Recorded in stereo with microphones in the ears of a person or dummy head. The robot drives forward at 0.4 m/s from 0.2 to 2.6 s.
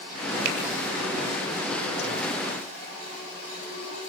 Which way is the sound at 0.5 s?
65° right (ahead or behind).